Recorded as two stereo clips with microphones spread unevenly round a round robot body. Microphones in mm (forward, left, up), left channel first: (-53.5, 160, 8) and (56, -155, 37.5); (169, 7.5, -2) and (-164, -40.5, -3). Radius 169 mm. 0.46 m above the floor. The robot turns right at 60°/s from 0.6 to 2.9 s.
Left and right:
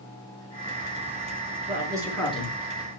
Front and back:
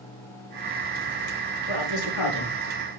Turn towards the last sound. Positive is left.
turn(degrees=65)